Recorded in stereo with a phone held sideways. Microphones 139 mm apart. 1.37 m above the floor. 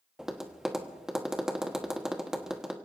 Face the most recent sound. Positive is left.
turn(degrees=-5)  # may be behind; listen again after turning